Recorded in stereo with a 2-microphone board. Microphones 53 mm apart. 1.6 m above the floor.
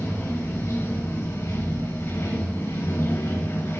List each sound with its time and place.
0.0 s running water: 85° left, 3.5 m